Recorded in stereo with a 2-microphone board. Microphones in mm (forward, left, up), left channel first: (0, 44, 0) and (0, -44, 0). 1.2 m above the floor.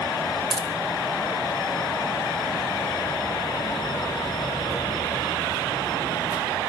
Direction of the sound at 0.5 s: 55° right (ahead or behind).